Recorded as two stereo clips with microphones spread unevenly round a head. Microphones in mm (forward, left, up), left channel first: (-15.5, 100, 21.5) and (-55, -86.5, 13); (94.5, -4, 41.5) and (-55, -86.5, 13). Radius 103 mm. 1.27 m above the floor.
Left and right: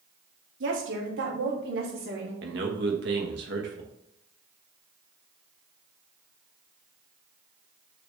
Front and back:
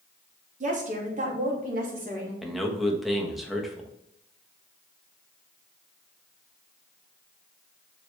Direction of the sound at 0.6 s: 110° right.